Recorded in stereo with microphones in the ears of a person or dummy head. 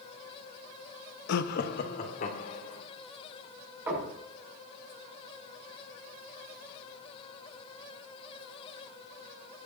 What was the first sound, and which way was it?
Laughter, 65° left (ahead or behind).